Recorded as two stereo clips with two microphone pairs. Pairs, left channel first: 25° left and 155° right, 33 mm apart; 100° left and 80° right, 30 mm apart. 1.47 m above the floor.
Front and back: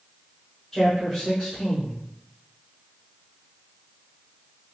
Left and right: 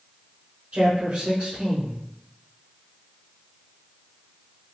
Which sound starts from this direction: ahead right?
A man speaking, at 0.7 s.